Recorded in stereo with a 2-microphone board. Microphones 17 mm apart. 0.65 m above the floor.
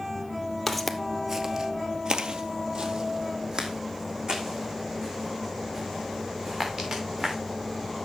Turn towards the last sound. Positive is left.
turn(degrees=-45)  # may be behind; listen again after turning